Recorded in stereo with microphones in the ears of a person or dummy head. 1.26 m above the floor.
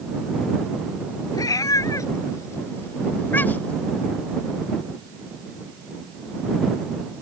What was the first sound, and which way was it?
A cat meowing, 20° left (ahead or behind).